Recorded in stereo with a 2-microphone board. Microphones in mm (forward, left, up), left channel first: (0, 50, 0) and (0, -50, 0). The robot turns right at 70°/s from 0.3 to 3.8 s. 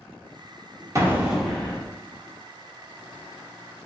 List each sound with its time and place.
0.9 s an explosion: 30° right, 0.7 m; by 1.9 s 35° left, 0.7 m